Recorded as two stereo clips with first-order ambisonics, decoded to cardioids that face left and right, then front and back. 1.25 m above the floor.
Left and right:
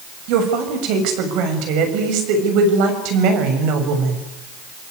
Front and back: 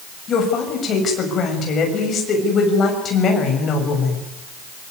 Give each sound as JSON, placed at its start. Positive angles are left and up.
{"t": 0.3, "sound": "a woman speaking", "azimuth_deg": -65, "distance_m": 6.5}